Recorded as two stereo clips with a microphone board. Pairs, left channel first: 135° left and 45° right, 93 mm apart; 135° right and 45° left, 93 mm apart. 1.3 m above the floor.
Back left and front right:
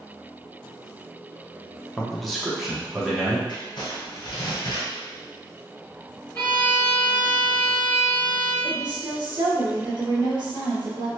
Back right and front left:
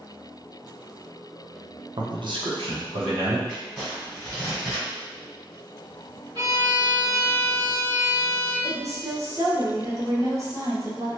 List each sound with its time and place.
2.0 s a man speaking: 55° left, 0.6 m; by 3.4 s 35° left, 1.4 m
3.5 s crumpling: 125° left, 2.0 m
6.3 s a violin: 65° left, 1.7 m
8.6 s a woman speaking: 10° right, 1.0 m